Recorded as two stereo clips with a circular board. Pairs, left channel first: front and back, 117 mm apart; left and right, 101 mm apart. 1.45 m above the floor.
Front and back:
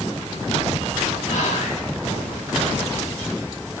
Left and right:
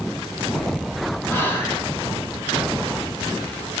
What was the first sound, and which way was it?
Whispering, 20° left.